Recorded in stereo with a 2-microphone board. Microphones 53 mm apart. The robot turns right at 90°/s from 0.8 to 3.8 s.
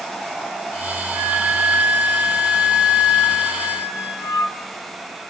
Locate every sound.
1.1 s a flute: 65° right, 3 m; by 4.5 s 175° left, 3 m